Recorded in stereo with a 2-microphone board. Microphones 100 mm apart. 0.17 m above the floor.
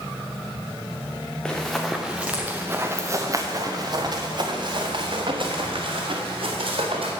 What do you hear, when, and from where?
1.4 s running footsteps: 10° left (ahead or behind), 1.3 m; by 7.1 s 70° right (ahead or behind), 3 m